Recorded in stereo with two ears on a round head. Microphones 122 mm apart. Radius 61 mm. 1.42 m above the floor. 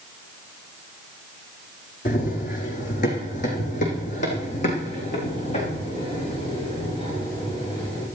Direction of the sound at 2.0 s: 65° left (ahead or behind).